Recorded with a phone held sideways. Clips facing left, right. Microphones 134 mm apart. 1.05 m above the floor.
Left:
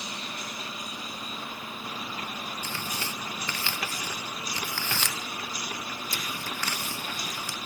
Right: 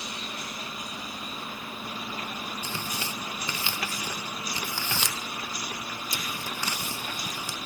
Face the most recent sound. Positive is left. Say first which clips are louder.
# right 1 dB
turn(degrees=-15)  # may be behind; listen again after turning